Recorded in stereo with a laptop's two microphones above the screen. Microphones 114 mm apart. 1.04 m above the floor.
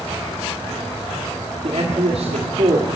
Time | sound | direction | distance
1.6 | a man speaking | 85° right | 1.9 m